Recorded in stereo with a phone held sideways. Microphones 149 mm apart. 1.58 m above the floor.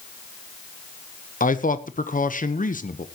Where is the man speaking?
65° left (ahead or behind), 1.1 m.